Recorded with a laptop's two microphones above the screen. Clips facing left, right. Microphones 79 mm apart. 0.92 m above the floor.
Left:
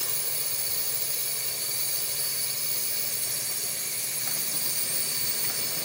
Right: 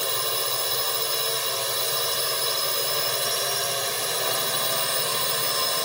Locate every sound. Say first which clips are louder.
0.0 s a drone: right 12 dB; 75° right (ahead or behind)